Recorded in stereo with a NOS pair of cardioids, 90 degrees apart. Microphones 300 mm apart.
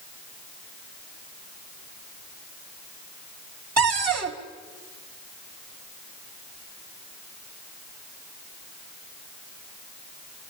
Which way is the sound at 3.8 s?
60° right.